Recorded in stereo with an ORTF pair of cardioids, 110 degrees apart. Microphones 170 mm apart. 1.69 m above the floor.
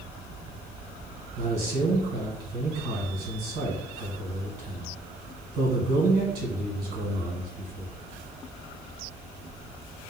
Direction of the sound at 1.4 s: 70° right.